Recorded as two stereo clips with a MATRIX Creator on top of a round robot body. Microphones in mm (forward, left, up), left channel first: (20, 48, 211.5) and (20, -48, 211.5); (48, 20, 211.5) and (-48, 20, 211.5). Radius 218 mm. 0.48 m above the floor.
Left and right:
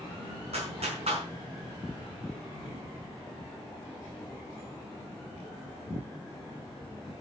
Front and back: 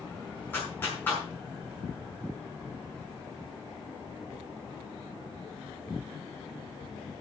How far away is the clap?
About 5.5 m.